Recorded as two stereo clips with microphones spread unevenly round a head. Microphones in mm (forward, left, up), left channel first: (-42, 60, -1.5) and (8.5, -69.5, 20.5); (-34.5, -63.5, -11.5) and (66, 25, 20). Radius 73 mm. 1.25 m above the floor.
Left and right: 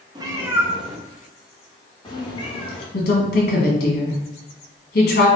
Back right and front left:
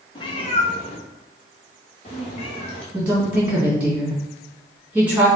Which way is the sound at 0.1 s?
85° right.